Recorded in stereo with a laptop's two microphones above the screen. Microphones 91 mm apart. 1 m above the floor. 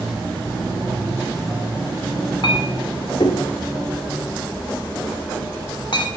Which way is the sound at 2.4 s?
60° left (ahead or behind).